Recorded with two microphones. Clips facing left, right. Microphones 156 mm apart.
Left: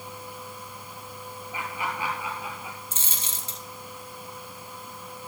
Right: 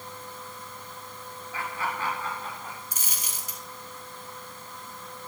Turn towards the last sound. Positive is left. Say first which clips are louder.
# left 1 dB
turn(degrees=25)  # may be behind; listen again after turning